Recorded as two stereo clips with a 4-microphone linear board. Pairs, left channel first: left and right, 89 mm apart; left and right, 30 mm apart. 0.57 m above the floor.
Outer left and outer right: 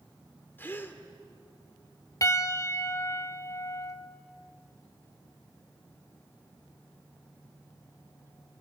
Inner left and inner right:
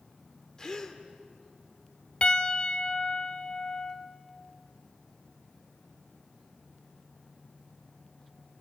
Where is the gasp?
25° left (ahead or behind), 2 m.